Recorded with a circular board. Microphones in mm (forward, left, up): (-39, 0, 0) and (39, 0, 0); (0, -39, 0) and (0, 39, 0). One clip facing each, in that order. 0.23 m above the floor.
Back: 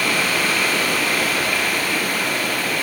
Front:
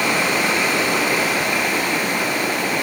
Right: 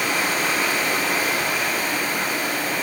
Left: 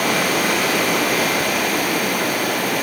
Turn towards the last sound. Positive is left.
turn(degrees=70)